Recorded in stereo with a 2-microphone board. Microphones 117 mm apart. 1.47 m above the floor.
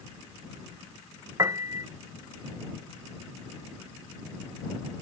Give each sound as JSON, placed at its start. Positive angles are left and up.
{"t": 1.4, "sound": "a piano", "side_deg": -30}